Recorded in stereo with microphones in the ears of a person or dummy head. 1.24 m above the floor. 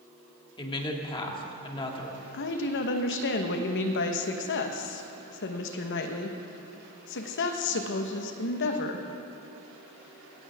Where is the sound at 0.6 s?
25° left (ahead or behind), 2 m.